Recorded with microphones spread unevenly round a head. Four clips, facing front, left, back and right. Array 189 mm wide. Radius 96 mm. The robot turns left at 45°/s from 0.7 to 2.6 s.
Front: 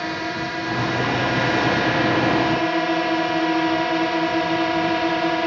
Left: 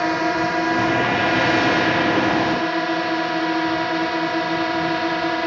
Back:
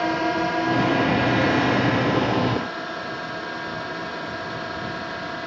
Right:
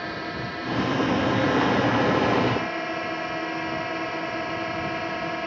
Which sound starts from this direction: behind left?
A drone, at 0.0 s.